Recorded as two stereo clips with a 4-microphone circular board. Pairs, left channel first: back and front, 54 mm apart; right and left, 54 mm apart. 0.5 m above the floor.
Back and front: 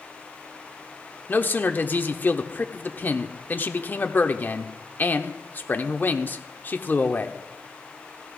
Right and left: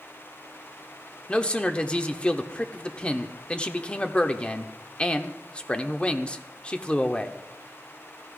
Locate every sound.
1.3 s a man speaking: 150° right, 0.9 m